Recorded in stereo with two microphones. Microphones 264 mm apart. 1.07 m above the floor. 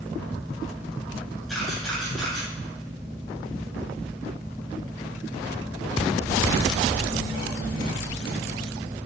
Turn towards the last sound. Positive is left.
turn(degrees=0)  # may be behind; listen again after turning